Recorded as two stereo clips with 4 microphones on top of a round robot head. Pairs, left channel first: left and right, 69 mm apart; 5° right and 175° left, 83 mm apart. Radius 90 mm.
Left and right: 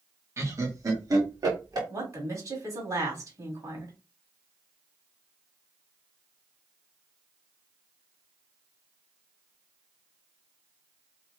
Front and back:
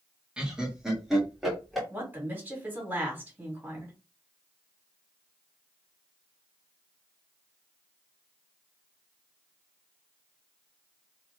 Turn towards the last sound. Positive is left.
turn(degrees=-120)